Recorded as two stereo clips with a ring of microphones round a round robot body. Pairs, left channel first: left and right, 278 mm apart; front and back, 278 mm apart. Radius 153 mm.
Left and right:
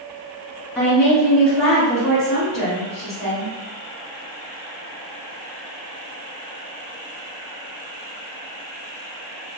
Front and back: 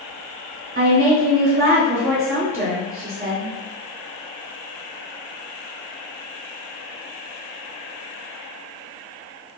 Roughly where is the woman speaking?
Behind.